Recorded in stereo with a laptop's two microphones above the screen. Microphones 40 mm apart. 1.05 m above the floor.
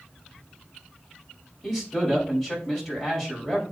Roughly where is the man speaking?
Centre.